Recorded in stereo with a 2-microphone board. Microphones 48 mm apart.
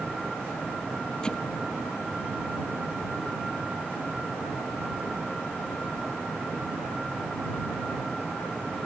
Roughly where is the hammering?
Centre.